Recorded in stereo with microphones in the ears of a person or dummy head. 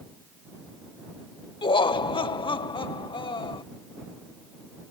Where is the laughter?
20° left (ahead or behind).